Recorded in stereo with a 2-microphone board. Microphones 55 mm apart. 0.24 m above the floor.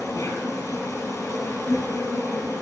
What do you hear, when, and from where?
0.0 s an insect: 80° left, 2.5 m